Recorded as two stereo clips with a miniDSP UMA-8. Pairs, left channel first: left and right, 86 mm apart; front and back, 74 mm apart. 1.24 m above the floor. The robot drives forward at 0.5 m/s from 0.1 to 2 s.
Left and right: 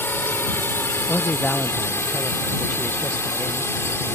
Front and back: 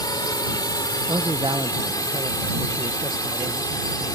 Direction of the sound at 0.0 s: 25° left.